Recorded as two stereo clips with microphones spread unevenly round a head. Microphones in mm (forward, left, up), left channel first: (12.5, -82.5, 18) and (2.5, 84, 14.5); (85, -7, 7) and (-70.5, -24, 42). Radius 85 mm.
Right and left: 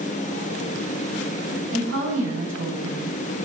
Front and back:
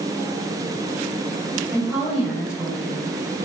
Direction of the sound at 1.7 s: 105° left.